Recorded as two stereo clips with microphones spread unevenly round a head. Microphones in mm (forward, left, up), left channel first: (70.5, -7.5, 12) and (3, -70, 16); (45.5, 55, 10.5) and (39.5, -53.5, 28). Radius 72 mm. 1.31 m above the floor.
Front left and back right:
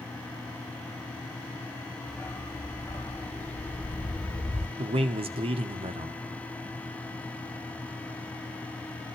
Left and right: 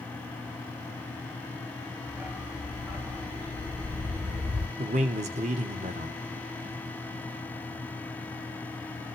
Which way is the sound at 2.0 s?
25° right.